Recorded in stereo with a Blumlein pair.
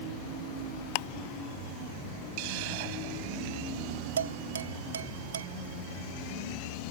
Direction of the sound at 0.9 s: 45° left.